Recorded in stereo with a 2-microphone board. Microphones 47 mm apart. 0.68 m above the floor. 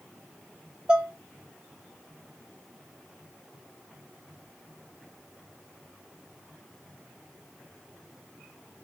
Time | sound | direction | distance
0.9 | dishes clattering | 20° right (ahead or behind) | 0.6 m